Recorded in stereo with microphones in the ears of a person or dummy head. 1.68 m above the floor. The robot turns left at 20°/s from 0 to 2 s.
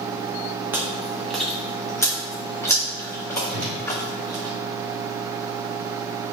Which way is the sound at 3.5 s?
50° right (ahead or behind).